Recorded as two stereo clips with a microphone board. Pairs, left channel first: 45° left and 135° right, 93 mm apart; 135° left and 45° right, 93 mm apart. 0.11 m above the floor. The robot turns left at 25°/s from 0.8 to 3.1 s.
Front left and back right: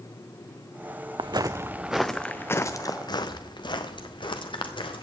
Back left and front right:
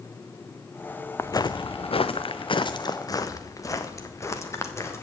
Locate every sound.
1.2 s footsteps: 165° right, 0.5 m; by 5.0 s 75° left, 2 m